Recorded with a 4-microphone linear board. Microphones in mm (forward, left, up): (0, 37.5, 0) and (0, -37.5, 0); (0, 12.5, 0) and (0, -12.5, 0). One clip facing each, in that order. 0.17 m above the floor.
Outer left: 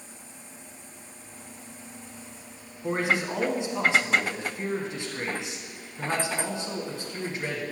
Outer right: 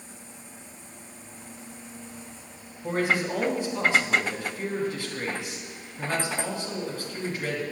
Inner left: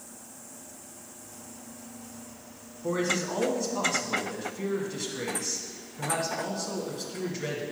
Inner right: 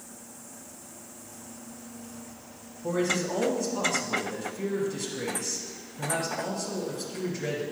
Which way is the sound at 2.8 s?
20° left (ahead or behind).